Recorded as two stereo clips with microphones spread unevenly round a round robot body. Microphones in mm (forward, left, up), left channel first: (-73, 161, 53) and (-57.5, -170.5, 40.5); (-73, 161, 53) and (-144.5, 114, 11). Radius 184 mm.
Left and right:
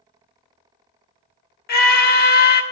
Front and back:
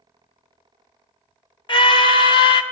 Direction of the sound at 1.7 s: 55° left.